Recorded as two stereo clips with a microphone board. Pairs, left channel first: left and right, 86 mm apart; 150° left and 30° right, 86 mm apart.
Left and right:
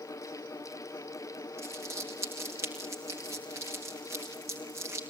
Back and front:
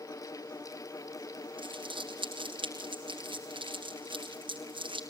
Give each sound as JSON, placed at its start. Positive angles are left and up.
{"t": 1.6, "sound": "crumpling", "azimuth_deg": -35, "distance_m": 5.0}